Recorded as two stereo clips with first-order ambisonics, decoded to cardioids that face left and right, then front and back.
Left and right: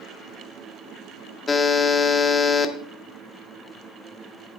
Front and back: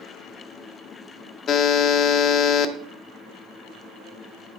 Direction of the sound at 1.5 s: 20° left.